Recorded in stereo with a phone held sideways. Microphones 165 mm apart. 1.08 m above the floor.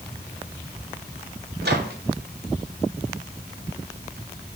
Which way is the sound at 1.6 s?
75° right (ahead or behind).